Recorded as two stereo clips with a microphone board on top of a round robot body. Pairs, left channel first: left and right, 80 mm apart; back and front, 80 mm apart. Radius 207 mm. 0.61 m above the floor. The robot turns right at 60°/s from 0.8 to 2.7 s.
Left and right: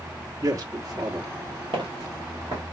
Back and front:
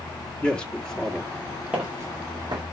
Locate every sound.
0.4 s a man speaking: 105° right, 1.3 m; by 1.6 s 55° right, 1.3 m
1.7 s footsteps: 85° right, 1.0 m; by 2.6 s 30° right, 1.0 m